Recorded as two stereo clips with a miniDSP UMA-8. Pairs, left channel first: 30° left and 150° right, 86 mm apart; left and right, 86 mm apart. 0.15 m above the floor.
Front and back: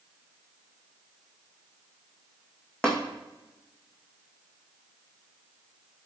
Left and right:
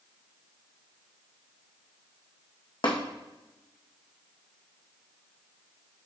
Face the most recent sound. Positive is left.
turn(degrees=110)